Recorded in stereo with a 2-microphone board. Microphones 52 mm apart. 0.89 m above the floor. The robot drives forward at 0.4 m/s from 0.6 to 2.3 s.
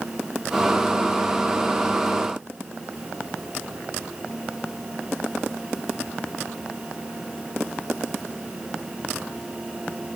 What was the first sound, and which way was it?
Only background noise.